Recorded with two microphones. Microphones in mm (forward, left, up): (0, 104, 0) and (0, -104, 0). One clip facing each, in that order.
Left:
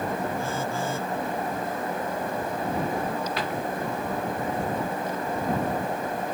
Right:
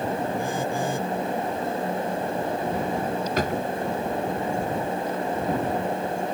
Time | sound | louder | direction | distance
0.4 | a phone buzzing | right 3 dB | 15° right (ahead or behind) | ?
3.4 | a drawer | right 4 dB | 45° right (ahead or behind) | ?